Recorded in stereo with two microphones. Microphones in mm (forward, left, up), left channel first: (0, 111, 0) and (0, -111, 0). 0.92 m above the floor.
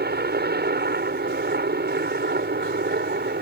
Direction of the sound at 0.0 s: 45° right (ahead or behind).